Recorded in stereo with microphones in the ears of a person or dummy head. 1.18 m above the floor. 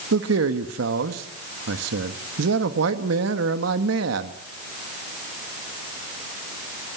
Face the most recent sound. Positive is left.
turn(degrees=-85)